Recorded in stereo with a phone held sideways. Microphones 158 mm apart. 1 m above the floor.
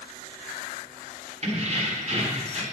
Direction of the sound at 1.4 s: 45° right (ahead or behind).